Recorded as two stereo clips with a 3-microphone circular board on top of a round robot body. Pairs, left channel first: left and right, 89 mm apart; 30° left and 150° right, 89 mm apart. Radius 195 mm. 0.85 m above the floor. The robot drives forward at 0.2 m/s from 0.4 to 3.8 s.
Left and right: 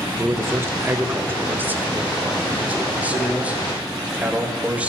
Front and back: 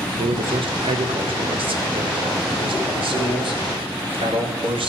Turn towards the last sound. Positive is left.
turn(degrees=-165)